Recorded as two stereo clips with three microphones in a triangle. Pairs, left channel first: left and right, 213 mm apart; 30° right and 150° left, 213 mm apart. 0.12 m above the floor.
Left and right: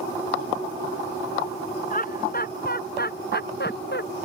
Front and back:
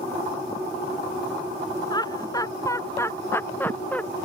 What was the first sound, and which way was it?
Laughter, 40° left.